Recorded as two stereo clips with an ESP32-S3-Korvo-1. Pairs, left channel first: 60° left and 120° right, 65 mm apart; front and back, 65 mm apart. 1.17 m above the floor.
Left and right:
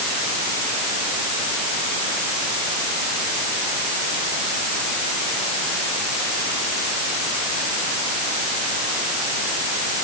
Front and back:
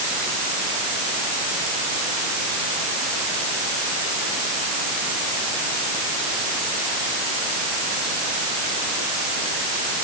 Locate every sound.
Only background noise.